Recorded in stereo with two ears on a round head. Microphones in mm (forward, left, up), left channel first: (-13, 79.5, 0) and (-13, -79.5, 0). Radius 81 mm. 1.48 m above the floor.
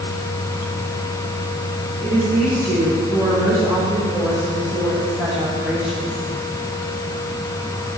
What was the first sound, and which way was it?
A woman speaking, 20° right (ahead or behind).